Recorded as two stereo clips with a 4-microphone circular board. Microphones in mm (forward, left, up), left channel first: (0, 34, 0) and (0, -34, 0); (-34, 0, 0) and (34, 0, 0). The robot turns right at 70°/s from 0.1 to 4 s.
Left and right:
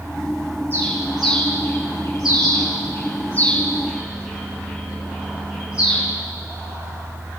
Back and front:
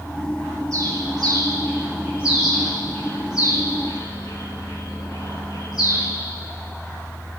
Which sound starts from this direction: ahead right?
A bird, at 0.7 s.